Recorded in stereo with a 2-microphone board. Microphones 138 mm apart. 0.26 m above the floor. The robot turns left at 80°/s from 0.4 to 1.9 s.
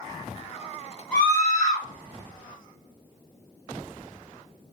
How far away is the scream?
About 1.8 m.